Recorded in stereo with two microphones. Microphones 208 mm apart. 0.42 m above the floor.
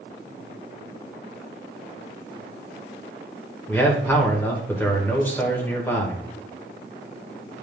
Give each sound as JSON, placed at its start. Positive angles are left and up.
{"t": 3.7, "sound": "a man speaking", "side_deg": 10, "distance_m": 1.5}